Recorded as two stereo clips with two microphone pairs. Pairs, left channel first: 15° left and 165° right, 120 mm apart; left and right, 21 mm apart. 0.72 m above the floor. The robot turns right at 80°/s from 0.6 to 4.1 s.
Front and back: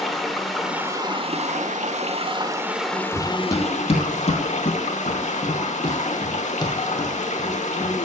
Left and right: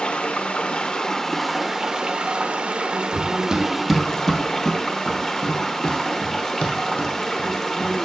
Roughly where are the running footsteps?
Right.